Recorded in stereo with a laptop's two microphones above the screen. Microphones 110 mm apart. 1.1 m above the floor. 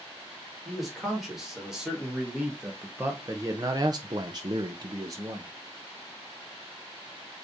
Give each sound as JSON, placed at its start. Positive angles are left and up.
{"t": 0.7, "sound": "a man speaking", "side_deg": 0, "distance_m": 2.0}